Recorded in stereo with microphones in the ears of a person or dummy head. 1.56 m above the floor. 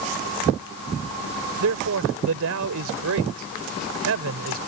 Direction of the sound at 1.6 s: 75° right (ahead or behind).